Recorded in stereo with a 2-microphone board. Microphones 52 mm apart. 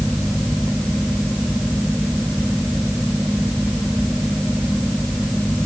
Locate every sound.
Only background noise.